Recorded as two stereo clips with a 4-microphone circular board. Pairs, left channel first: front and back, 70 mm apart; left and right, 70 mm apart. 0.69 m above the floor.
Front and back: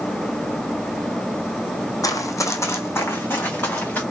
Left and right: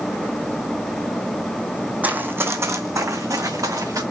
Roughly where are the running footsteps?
Ahead right.